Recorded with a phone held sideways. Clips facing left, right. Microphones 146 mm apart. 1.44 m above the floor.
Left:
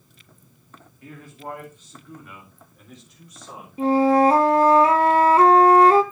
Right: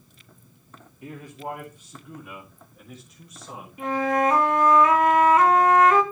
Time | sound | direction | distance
1.0 | a man speaking | 20° right (ahead or behind) | 2.5 m
3.8 | a flute | 30° left (ahead or behind) | 0.9 m